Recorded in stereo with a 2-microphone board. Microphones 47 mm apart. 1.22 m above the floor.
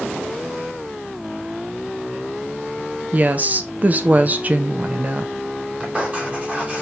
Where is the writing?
30° right (ahead or behind), 3 m.